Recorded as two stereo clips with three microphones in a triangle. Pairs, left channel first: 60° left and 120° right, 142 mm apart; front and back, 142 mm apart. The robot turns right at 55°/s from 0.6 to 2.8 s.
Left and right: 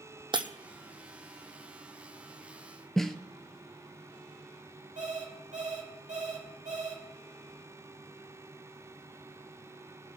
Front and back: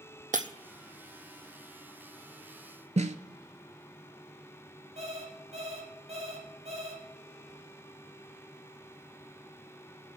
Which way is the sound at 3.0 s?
145° left.